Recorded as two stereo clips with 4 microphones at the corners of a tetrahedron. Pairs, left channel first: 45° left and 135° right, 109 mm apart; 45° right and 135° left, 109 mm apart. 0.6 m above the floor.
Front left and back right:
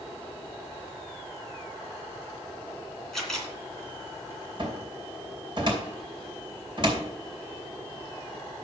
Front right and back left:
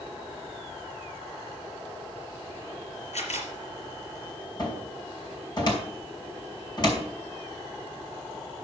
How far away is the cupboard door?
About 2.5 m.